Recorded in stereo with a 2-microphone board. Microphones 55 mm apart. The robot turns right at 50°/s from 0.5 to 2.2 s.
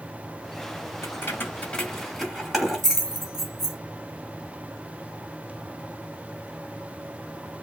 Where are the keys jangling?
50° left (ahead or behind), 2.5 m; by 3.8 s 5° right (ahead or behind), 2.5 m.